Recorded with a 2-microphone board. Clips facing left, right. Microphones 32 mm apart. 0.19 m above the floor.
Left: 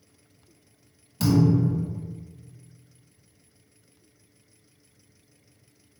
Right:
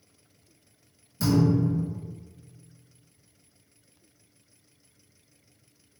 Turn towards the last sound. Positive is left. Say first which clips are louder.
# left 2 dB
turn(degrees=65)  # may be behind; listen again after turning